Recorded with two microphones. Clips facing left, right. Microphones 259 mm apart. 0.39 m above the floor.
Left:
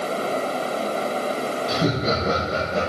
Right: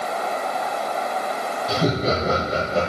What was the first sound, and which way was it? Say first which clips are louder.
Laughter: right 2 dB; centre (ahead or behind).